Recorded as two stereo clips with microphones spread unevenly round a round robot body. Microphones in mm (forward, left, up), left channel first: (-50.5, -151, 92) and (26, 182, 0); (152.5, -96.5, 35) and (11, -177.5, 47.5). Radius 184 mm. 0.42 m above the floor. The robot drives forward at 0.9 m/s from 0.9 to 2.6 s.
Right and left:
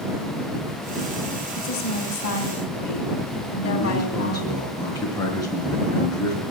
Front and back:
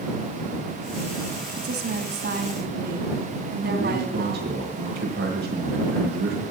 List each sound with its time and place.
1.6 s a woman speaking: 145° right, 2.5 m; by 4.6 s 155° right, 3 m
3.6 s a man speaking: 175° left, 5 m